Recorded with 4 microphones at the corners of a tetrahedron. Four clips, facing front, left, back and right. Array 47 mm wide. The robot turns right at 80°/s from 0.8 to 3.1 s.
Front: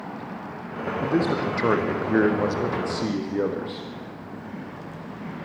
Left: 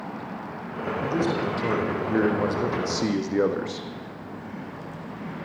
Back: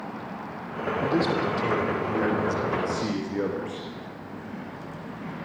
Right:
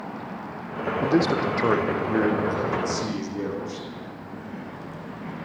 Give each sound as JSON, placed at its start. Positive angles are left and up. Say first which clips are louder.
{"t": 1.0, "sound": "a man speaking", "louder": "right 4 dB, front 1 dB", "azimuth_deg": -85, "distance_m": 4.5}